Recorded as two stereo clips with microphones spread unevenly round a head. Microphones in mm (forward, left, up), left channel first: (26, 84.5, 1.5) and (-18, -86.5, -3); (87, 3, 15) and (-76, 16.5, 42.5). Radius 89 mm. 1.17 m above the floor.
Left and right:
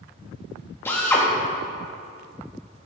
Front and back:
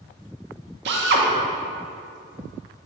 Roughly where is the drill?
Behind left.